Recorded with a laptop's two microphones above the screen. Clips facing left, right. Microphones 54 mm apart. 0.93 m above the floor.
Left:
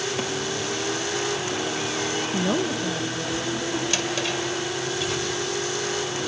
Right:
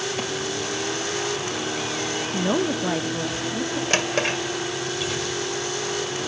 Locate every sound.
2.3 s a woman speaking: 10° left (ahead or behind), 0.7 m; by 3.8 s 65° right (ahead or behind), 1.8 m
3.9 s a drawer: 50° right (ahead or behind), 1.7 m